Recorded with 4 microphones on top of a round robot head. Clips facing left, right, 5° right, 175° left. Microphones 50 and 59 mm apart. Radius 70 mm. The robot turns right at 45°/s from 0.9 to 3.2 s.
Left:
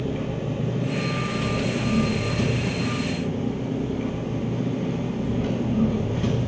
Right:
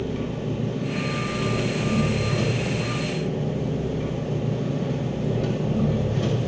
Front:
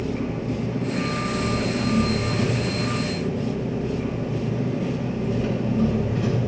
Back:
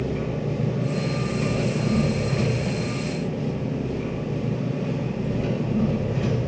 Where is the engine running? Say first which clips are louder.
Even, even; 160° left, 2.5 m; by 6.5 s 95° right, 2.5 m.